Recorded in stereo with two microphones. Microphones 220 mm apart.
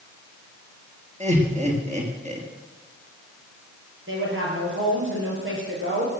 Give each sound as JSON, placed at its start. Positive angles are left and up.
{"t": 1.2, "sound": "laughter", "side_deg": -30, "distance_m": 3.0}
{"t": 4.1, "sound": "a woman speaking", "side_deg": -65, "distance_m": 5.0}